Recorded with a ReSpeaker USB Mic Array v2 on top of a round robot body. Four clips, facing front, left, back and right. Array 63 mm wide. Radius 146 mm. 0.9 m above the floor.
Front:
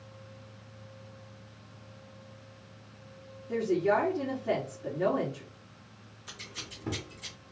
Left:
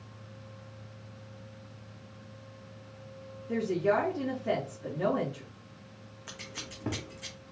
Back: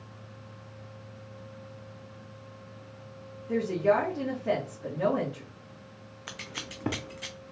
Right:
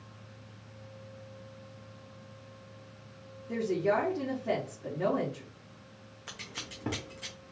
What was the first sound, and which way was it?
A woman speaking, 165° left.